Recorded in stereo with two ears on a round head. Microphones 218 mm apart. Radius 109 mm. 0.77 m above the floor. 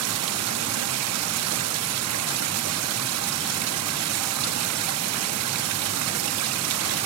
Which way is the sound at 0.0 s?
70° right (ahead or behind).